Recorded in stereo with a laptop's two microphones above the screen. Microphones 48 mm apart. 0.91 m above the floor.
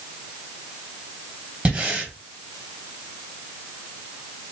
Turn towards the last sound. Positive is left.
turn(degrees=-25)  # may be behind; listen again after turning